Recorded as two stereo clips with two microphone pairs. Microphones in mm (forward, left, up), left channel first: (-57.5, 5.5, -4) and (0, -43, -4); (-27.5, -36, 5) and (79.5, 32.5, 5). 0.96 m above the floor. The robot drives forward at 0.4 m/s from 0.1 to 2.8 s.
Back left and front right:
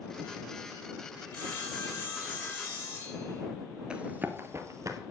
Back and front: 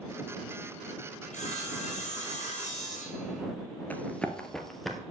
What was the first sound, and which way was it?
Sawing, 165° right.